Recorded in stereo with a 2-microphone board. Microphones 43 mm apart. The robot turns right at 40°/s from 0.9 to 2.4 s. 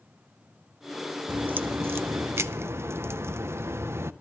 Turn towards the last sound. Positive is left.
turn(degrees=-95)